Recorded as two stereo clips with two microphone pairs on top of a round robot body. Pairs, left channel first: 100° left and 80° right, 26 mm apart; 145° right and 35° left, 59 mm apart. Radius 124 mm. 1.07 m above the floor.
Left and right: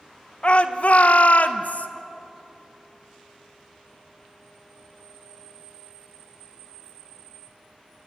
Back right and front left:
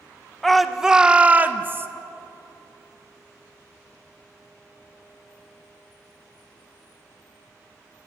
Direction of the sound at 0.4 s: 135° left.